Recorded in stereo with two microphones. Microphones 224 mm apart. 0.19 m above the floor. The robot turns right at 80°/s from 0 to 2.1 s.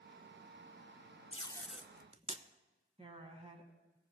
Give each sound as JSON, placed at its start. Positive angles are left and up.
{"t": 1.3, "sound": "tape being pulled", "side_deg": 30, "distance_m": 0.5}
{"t": 3.0, "sound": "a woman speaking", "side_deg": -25, "distance_m": 1.2}